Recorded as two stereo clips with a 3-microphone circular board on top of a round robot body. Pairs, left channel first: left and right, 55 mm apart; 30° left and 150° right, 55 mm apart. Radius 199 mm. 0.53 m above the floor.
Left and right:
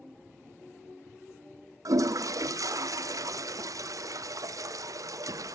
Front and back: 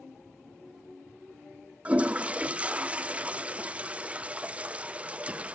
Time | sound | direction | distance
1.9 | a toilet flushing | 85° right | 0.7 m